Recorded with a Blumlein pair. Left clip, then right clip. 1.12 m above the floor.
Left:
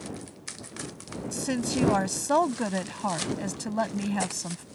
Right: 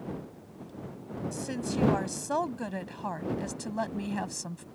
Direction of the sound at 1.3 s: 65° left.